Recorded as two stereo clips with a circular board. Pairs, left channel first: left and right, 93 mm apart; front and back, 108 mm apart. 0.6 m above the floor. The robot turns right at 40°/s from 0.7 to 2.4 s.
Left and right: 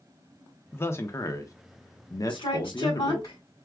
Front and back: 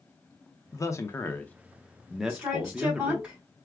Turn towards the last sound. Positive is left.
turn(degrees=110)